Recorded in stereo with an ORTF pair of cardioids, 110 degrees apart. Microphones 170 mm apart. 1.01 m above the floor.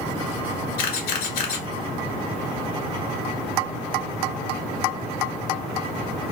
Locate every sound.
0.8 s a camera shutter: 70° left, 1.1 m